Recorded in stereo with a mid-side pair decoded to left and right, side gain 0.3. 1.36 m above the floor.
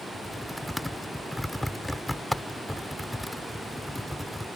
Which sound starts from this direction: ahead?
Typing on a keyboard, at 0.1 s.